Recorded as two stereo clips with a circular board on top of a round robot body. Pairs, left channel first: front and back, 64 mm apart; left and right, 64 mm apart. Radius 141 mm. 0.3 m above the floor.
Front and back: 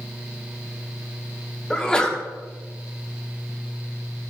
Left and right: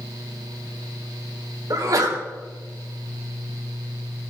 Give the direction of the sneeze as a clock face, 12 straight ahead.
3 o'clock.